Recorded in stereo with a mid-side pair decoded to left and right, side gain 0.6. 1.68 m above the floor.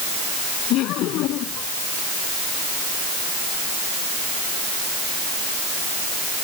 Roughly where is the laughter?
Ahead left.